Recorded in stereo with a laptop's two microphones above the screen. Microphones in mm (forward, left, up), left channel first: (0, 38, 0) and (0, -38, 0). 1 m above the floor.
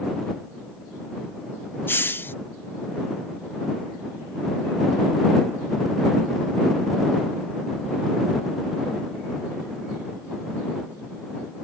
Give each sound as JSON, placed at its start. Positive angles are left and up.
{"t": 1.9, "sound": "a hiss", "side_deg": 30}